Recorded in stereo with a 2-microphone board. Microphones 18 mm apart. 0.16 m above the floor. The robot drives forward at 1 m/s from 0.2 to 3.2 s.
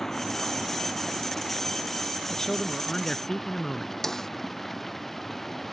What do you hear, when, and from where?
0.0 s running water: 20° left (ahead or behind); by 5.7 s 10° left (ahead or behind)
2.3 s a man speaking: 30° left (ahead or behind); by 3.9 s 40° left (ahead or behind)
4.0 s a snare drum: 20° left (ahead or behind)